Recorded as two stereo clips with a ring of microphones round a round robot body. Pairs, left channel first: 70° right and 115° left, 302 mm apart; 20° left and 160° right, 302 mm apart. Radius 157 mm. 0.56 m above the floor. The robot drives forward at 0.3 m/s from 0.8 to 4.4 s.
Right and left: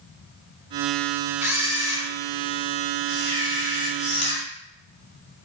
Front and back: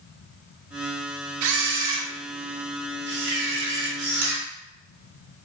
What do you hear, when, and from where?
1.4 s a camera shutter: 165° right, 0.6 m; by 4.4 s 175° right, 1.5 m